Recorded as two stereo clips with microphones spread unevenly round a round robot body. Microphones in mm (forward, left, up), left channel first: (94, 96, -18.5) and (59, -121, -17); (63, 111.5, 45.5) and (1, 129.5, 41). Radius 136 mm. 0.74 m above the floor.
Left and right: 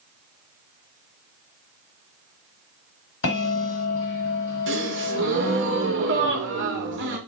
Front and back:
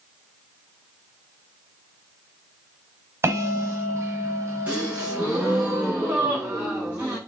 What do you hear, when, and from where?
3.2 s a bell: 120° left, 1.3 m
4.7 s a gasp: 135° right, 0.8 m